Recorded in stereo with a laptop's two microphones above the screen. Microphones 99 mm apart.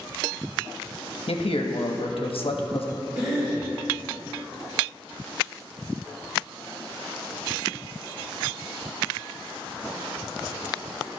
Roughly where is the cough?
Right.